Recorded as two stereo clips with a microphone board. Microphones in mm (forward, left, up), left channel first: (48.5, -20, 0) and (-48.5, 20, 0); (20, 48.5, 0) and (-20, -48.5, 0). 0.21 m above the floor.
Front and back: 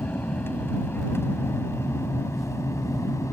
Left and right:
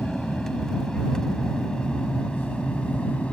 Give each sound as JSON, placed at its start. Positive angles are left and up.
{"t": 0.0, "sound": "an aircraft", "azimuth_deg": -15}